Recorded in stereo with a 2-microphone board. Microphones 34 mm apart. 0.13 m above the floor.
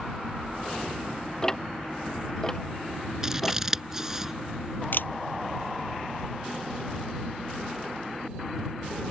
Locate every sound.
1.4 s ticking: 15° left (ahead or behind)
3.2 s scissors: 15° right (ahead or behind)
4.9 s a camera shutter: 65° left (ahead or behind)